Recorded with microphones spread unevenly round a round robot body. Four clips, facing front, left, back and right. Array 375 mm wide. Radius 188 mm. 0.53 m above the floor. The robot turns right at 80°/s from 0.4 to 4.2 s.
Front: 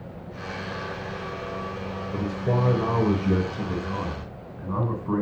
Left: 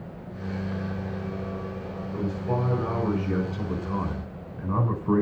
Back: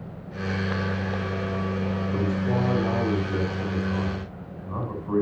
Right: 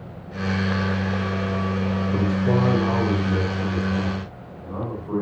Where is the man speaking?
85° right, 7 m; by 5.2 s 80° left, 7 m.